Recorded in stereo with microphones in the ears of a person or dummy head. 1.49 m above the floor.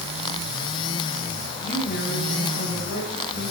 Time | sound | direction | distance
1.6 | a woman speaking | 60° left (ahead or behind) | 9 m